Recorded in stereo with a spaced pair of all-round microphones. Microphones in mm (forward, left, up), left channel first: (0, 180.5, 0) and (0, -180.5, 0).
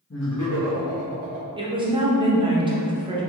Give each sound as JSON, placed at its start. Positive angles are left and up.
{"t": 0.1, "sound": "laughter", "side_deg": 40, "distance_m": 0.6}
{"t": 1.6, "sound": "a woman speaking", "side_deg": -15, "distance_m": 0.5}